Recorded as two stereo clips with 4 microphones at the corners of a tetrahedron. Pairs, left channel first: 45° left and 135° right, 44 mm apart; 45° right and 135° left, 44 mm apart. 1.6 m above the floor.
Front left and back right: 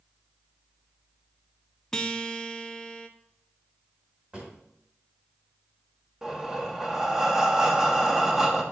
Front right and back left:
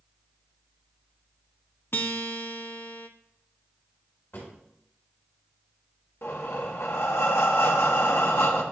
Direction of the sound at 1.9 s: 30° right.